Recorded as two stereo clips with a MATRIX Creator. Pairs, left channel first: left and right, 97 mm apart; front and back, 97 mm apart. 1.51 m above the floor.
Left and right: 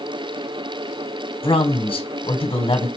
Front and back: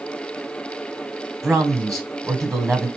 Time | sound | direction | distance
1.4 | a man speaking | 95° left | 1.3 m